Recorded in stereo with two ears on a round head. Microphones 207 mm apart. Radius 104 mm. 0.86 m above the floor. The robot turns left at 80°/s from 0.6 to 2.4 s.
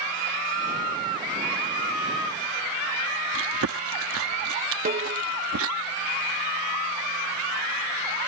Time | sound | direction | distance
3.3 | chewing | 70° right (ahead or behind) | ?
4.8 | a snare drum | 35° right (ahead or behind) | ?